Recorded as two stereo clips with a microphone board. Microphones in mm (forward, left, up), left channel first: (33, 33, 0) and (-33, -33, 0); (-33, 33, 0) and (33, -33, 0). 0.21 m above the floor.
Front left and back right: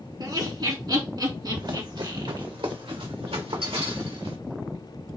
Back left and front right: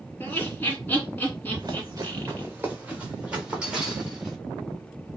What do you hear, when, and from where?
0.2 s laughter: 155° right, 2.5 m
1.6 s running footsteps: 90° right, 1.0 m; by 4.4 s 130° right, 2 m